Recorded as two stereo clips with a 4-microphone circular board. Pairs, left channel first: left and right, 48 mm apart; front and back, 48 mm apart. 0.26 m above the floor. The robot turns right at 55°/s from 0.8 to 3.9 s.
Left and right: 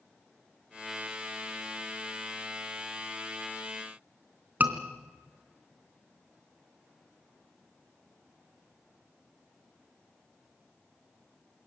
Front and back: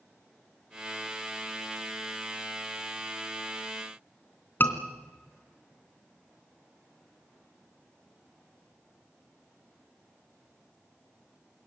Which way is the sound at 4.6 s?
40° right.